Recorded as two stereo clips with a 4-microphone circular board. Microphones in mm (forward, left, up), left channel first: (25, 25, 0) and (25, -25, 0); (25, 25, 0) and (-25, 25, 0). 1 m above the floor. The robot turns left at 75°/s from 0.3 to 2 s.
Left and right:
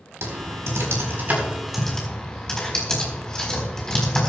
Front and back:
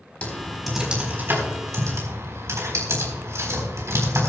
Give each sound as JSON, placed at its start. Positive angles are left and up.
{"t": 0.2, "sound": "typing on a keyboard", "azimuth_deg": -65, "distance_m": 4.0}